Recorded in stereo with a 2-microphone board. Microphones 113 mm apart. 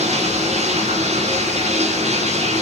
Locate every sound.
0.0 s running water: 80° right, 8.5 m